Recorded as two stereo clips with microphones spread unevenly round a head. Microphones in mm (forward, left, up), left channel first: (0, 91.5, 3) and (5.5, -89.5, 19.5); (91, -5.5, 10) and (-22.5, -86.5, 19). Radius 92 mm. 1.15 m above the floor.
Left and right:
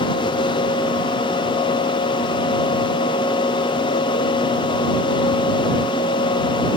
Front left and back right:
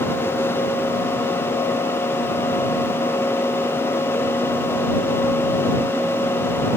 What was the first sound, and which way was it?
Only background noise.